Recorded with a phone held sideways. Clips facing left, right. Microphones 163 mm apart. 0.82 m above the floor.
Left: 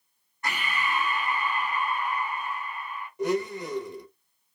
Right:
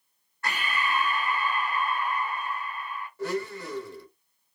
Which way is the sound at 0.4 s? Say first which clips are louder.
Even; 15° left (ahead or behind).